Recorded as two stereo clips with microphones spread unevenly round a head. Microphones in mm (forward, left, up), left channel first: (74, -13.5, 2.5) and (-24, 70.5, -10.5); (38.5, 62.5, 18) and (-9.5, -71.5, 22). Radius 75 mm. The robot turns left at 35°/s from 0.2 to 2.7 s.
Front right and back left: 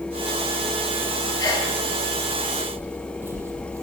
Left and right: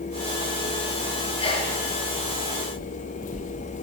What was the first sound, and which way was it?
A sneeze, 20° left.